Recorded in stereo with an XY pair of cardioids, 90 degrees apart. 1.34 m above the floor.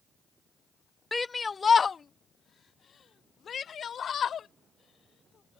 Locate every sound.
1.1 s a shout: 20° left; by 5.6 s 60° left